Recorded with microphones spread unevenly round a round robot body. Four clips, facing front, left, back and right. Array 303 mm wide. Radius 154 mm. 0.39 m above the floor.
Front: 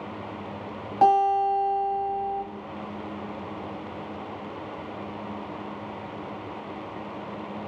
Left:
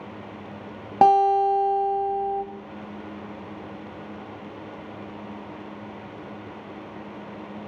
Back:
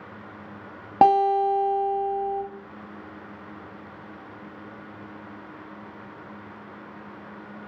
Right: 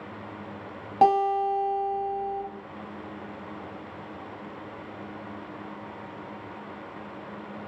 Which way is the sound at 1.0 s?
155° left.